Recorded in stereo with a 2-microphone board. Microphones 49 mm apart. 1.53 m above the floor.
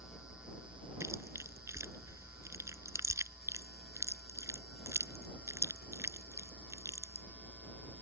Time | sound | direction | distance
1.0 | chewing | 75° right (ahead or behind) | ?